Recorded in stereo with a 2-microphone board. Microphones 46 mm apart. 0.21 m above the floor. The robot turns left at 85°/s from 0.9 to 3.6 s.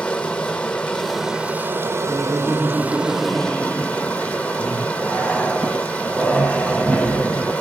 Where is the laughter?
175° left, 2 m; by 4.8 s 45° left, 2 m.